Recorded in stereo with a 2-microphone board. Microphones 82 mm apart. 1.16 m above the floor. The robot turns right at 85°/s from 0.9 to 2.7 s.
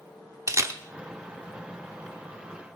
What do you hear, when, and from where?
0.5 s a camera shutter: 35° right (ahead or behind), 0.9 m